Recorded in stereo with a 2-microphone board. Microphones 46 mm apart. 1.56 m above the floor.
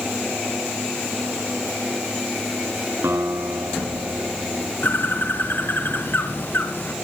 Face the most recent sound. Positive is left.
turn(degrees=45)  # may be behind; listen again after turning